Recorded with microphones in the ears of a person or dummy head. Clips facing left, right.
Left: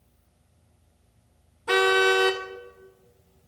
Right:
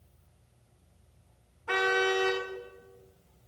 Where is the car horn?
60° left (ahead or behind), 2.5 m.